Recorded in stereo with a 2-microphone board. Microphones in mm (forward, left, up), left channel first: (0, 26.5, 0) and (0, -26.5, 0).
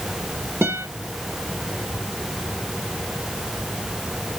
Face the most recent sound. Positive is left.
turn(degrees=-50)  # may be behind; listen again after turning